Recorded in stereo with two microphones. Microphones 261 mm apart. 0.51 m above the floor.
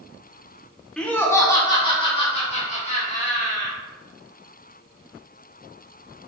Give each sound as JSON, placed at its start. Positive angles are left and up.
{"t": 1.0, "sound": "laughter", "side_deg": 5, "distance_m": 0.9}